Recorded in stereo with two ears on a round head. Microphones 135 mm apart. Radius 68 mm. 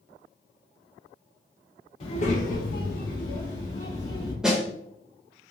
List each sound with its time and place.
2.0 s a child speaking: 40° left (ahead or behind), 0.8 m
4.4 s a snare drum: 5° right (ahead or behind), 0.7 m